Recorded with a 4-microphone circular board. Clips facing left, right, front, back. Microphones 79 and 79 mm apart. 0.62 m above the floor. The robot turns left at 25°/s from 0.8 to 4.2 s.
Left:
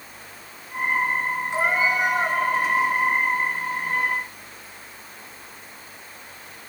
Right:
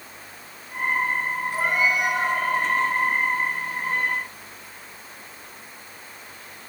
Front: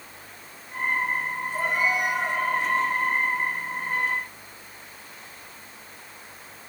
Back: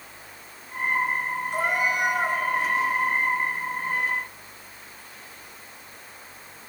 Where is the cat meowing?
160° left, 1.9 m; by 2.4 s 135° left, 1.9 m.